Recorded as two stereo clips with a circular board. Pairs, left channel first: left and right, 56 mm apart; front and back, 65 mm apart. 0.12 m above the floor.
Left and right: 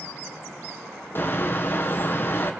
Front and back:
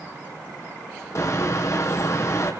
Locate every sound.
1.1 s a bird: 40° left, 2.5 m